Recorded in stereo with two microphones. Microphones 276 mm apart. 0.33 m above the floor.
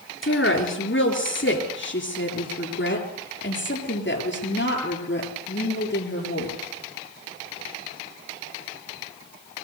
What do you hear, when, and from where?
0.2 s a woman speaking: 45° left (ahead or behind), 5.5 m; by 6.5 s 40° left (ahead or behind), 9 m